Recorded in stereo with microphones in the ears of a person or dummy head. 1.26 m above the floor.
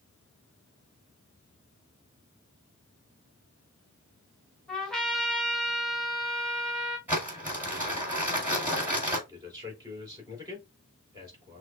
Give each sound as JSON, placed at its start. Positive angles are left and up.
{"t": 4.7, "sound": "a trumpet", "side_deg": 5, "distance_m": 1.5}
{"t": 7.1, "sound": "crumpling", "side_deg": -15, "distance_m": 4.0}
{"t": 9.3, "sound": "a man speaking", "side_deg": -25, "distance_m": 3.5}